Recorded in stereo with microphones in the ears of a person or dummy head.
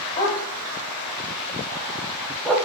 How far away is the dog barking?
About 2 m.